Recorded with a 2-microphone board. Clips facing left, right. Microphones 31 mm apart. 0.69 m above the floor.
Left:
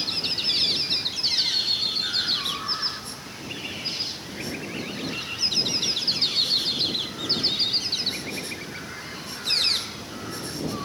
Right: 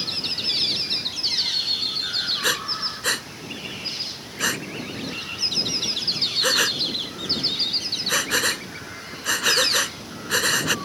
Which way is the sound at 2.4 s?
75° right (ahead or behind).